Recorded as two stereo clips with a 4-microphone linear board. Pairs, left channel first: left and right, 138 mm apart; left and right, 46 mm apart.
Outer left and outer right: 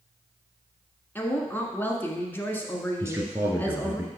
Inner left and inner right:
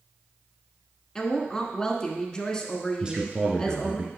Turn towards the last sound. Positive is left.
turn(degrees=-20)  # may be behind; listen again after turning